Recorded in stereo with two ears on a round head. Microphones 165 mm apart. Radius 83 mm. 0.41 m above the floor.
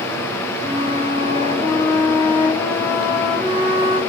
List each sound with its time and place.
0.6 s a flute: 25° left (ahead or behind), 1.7 m